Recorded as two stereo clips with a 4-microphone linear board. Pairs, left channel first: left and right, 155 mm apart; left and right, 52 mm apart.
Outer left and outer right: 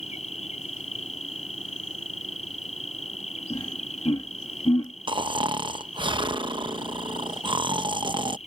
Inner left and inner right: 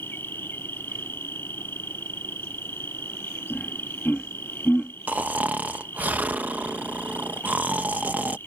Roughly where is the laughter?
Left.